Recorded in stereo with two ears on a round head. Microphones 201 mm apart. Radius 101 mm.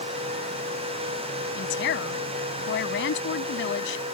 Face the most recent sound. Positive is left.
turn(degrees=55)  # may be behind; listen again after turning